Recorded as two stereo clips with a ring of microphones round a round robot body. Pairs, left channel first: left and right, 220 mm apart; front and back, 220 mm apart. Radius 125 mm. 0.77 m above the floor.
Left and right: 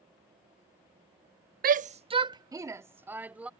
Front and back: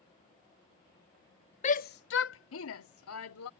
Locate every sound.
1.6 s a shout: 55° right; by 3.5 s 5° right